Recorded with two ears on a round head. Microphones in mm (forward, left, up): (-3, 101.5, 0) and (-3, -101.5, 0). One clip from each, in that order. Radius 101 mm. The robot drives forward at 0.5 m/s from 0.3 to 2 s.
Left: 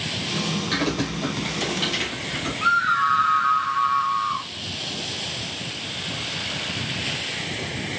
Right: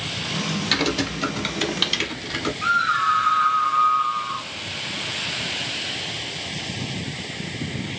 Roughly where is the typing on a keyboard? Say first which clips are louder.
Right 6 dB; right.